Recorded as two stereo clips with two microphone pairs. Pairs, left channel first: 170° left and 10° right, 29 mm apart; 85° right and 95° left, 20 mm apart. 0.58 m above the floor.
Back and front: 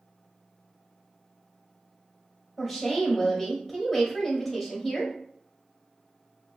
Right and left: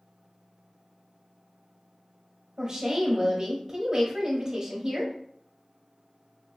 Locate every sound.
2.6 s a woman speaking: 85° left, 0.9 m